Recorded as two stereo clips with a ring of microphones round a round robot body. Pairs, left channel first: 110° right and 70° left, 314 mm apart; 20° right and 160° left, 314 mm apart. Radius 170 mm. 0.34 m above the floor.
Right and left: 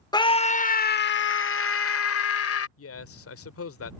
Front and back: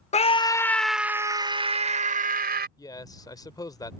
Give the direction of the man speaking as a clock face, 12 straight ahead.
3 o'clock.